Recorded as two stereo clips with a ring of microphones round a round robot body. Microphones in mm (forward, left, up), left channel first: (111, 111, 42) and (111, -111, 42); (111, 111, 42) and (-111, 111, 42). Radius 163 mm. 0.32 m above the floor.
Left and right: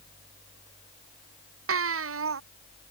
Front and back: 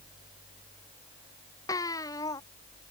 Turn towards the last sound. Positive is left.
turn(degrees=-80)